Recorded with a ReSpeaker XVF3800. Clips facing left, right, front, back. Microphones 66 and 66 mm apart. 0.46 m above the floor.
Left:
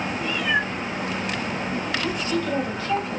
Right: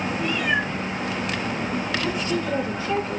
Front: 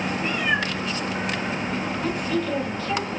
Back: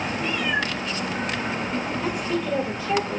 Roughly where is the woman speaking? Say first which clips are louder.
Even, front 1 dB; behind right.